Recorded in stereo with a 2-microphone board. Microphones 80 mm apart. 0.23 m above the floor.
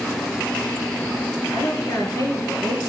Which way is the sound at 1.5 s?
50° left (ahead or behind).